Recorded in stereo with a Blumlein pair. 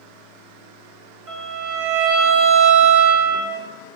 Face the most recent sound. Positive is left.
turn(degrees=-35)